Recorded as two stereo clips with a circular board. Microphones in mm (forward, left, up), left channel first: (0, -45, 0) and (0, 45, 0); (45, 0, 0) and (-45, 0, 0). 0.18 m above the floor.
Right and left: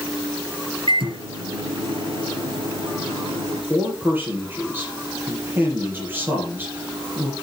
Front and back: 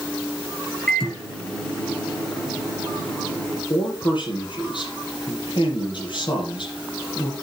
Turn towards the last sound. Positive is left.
turn(degrees=20)